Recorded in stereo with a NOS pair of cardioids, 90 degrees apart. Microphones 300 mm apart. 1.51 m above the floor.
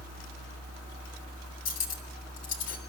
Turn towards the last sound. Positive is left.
turn(degrees=60)